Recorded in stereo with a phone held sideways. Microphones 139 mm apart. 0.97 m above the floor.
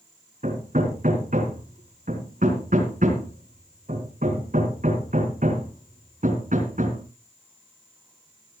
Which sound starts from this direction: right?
Hammering, at 0.4 s.